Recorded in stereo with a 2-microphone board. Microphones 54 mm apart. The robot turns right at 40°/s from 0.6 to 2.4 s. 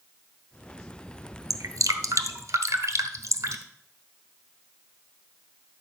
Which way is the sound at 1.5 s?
70° right (ahead or behind).